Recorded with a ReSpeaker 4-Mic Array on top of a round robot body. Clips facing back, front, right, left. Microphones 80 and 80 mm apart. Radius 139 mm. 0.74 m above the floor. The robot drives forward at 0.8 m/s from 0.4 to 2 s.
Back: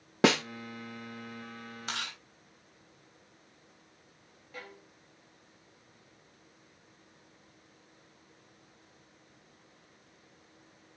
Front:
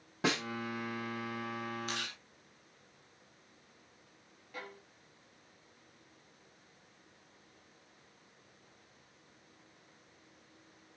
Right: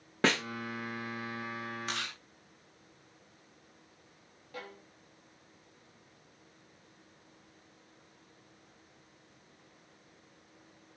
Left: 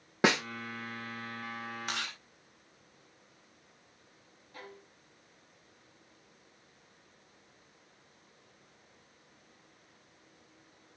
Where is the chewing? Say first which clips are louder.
Back 2 dB, even; 170° left, 8.5 m.